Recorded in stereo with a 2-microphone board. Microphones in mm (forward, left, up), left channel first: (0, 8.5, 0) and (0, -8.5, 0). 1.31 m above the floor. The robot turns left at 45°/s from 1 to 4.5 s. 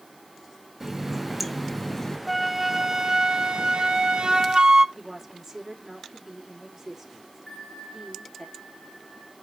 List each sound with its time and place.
0.8 s a running tap: 160° right, 1.1 m; by 2.2 s 150° left, 1.1 m
2.3 s a flute: 5° right, 0.6 m; by 4.8 s 105° right, 0.6 m
5.0 s a woman speaking: 25° right (ahead or behind), 3 m
7.5 s a bell: 25° left (ahead or behind), 1.8 m